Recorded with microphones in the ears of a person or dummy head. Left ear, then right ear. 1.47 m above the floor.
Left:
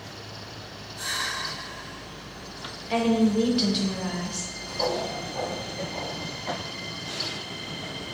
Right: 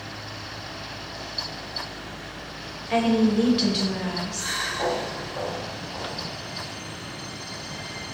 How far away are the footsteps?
About 2.0 m.